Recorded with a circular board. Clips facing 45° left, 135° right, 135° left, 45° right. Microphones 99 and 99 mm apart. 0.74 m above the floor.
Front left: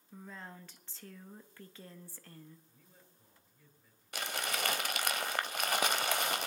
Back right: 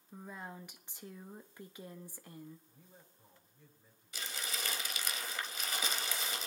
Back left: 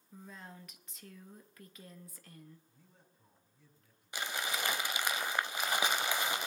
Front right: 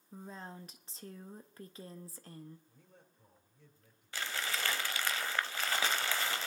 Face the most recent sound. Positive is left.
turn(degrees=65)